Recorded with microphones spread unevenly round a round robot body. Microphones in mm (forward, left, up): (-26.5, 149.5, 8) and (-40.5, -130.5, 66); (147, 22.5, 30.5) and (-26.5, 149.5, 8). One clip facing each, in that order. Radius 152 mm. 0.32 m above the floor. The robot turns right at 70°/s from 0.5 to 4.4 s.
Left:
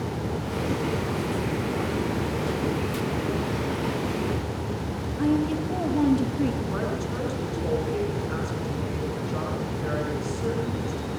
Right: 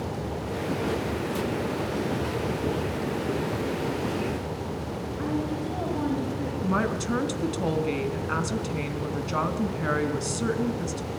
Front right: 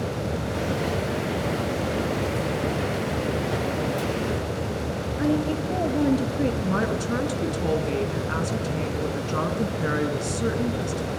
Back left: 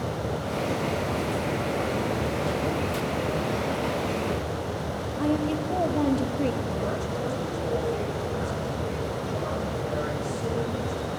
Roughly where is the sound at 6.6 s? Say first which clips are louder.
Right 2 dB, front right 4 dB; right.